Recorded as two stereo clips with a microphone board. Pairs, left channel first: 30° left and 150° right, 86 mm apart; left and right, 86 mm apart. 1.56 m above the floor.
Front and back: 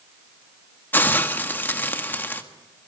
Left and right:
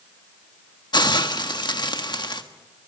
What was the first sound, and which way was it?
A hiss, 95° left.